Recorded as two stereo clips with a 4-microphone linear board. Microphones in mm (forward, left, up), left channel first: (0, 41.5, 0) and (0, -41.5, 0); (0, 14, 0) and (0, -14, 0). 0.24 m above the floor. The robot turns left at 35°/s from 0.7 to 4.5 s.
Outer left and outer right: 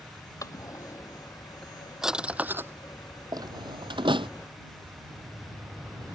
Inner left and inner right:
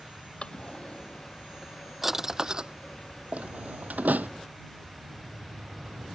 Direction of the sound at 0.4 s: 40° left (ahead or behind).